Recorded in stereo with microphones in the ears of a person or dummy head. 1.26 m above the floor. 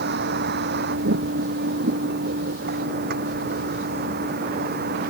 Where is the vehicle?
60° right (ahead or behind); by 5.1 s 55° right (ahead or behind).